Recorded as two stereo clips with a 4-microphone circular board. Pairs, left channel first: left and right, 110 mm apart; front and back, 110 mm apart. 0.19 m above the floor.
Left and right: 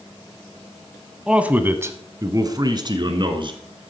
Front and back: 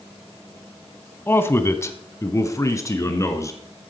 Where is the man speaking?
20° right, 1.0 m; by 3.6 s 60° right, 1.9 m.